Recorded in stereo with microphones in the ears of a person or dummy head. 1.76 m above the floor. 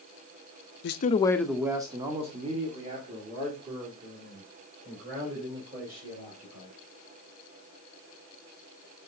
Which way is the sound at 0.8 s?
60° left (ahead or behind).